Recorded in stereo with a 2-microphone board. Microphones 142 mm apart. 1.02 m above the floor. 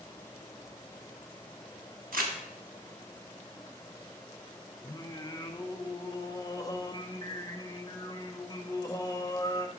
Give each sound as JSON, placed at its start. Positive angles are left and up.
{"t": 2.1, "sound": "crumpling", "side_deg": -75, "distance_m": 1.3}
{"t": 4.8, "sound": "singing", "side_deg": 25, "distance_m": 0.7}